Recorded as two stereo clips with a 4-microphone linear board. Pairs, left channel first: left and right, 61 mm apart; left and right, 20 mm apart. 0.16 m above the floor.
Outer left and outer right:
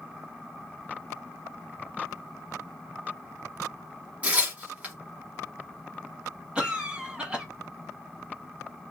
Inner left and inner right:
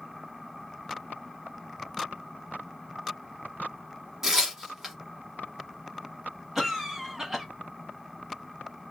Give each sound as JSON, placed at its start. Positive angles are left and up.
{"t": 4.2, "sound": "tearing paper", "side_deg": -25, "distance_m": 1.4}
{"t": 6.5, "sound": "a cough", "side_deg": -15, "distance_m": 1.3}